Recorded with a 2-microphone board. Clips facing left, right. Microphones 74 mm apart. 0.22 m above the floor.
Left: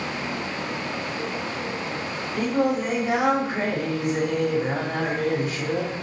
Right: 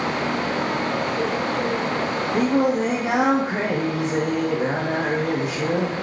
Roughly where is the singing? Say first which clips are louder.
Right 3 dB; right.